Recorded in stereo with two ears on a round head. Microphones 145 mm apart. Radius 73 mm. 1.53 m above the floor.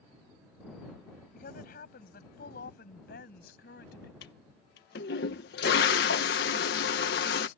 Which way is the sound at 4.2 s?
70° left (ahead or behind).